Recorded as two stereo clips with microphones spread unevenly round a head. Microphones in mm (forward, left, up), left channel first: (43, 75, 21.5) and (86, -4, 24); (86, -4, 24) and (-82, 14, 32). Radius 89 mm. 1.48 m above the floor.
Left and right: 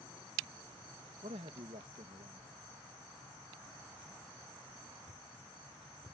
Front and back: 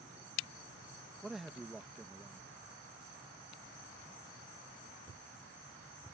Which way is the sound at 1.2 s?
100° right.